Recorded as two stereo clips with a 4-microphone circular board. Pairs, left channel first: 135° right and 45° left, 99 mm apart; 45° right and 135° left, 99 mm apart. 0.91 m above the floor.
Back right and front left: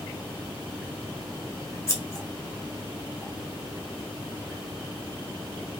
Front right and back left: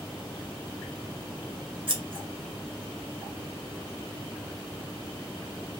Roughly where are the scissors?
Behind.